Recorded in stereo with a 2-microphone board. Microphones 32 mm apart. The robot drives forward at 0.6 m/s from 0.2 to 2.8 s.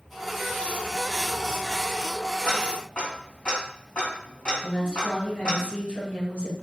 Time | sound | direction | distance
2.5 | ticking | 50° left (ahead or behind) | 3 m
4.6 | a woman speaking | 65° left (ahead or behind) | 3.5 m